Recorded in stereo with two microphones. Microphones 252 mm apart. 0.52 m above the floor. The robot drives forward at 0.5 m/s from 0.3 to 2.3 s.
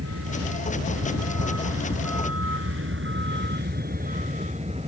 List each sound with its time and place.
0.0 s a vehicle: 75° right (ahead or behind); by 4.9 s 25° right (ahead or behind)